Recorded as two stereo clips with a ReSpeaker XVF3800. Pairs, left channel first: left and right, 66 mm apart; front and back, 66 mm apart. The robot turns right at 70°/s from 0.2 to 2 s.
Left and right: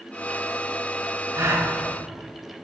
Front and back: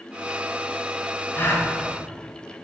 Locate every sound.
1.3 s a gasp: 60° right, 1.8 m; by 1.7 s 35° right, 1.8 m